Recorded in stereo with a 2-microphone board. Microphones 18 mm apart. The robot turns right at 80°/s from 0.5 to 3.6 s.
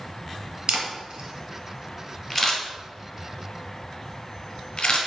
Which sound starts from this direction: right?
A camera shutter, at 0.7 s.